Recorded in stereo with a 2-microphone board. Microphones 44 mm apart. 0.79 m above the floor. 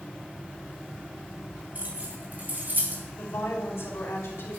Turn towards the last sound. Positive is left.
turn(degrees=80)